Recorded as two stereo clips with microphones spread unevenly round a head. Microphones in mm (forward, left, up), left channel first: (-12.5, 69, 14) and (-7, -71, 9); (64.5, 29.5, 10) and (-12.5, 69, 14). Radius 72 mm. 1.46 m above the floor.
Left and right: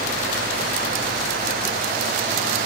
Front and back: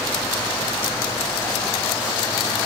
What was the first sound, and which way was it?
Only background noise.